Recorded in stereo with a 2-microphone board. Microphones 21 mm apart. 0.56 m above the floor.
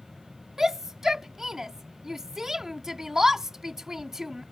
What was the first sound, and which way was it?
A shout, 15° right (ahead or behind).